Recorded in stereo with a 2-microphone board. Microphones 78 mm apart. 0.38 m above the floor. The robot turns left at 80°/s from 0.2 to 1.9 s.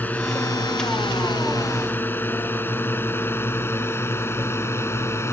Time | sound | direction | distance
0.0 | a drone | 20° left (ahead or behind) | ?